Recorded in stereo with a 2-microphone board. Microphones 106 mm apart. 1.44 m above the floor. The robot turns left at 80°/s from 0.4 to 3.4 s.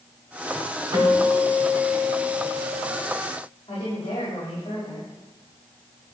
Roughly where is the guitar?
Ahead right.